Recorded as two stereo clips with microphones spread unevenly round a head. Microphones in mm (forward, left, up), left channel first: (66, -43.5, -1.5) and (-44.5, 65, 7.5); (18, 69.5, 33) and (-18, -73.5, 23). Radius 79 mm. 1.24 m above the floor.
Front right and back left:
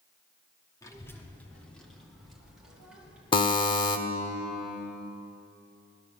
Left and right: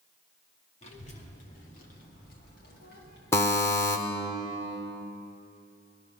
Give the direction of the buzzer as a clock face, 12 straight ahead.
12 o'clock.